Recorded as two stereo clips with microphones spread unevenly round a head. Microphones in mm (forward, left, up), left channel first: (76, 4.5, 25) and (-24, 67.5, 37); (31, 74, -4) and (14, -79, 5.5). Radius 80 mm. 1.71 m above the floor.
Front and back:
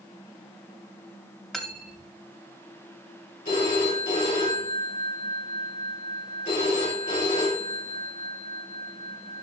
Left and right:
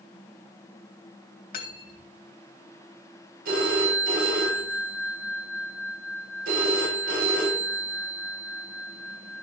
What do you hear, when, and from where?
1.5 s cutlery clinking: 60° left, 2 m
3.5 s a phone ringing: 75° right, 4.5 m